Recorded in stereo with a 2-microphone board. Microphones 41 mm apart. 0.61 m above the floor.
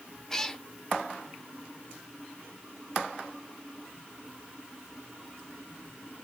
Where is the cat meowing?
10° left (ahead or behind), 0.6 m.